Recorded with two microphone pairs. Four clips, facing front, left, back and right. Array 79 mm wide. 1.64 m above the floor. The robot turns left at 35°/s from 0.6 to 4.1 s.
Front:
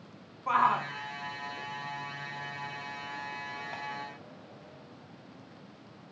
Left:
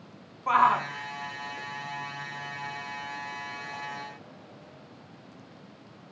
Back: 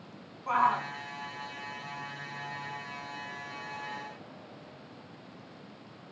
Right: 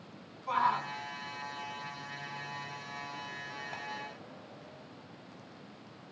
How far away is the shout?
About 1.0 m.